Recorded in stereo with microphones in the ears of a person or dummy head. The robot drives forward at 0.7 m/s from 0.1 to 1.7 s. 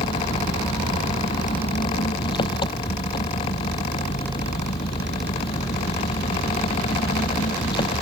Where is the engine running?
25° left (ahead or behind).